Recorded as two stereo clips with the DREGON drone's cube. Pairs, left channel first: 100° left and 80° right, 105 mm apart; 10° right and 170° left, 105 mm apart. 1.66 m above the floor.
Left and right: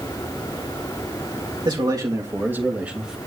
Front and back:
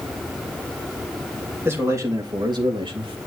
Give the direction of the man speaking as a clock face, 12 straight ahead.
4 o'clock.